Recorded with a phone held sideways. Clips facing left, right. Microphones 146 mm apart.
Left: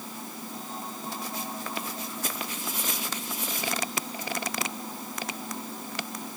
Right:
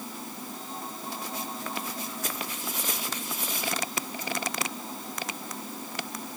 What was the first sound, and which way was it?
Only background noise.